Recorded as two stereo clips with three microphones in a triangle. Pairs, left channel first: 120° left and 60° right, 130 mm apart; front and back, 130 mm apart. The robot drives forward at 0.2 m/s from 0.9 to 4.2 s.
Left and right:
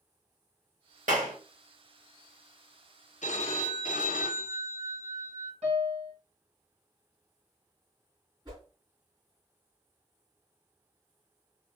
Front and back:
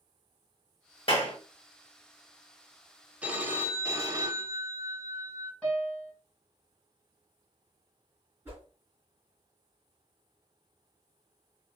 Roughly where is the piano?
Right.